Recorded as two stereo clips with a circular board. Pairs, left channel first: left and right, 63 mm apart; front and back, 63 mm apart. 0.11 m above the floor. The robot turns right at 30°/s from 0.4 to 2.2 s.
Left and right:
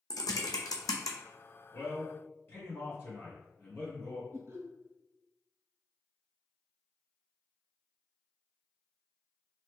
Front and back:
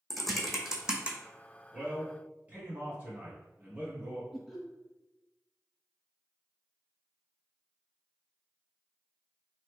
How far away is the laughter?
About 1.8 m.